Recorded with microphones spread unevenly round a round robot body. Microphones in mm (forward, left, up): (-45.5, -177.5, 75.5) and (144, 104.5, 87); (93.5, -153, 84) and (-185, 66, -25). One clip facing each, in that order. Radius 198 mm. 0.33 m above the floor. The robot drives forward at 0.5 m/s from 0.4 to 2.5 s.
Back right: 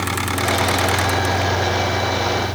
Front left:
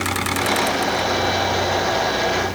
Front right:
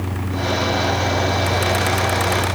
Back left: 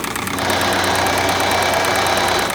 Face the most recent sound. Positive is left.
No sound to turn to.